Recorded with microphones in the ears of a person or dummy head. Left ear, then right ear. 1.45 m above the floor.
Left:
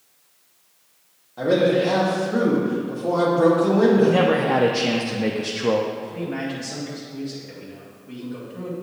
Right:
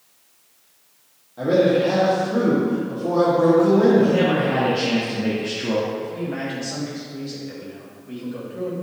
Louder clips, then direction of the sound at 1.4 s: Right 1 dB; 30° left (ahead or behind).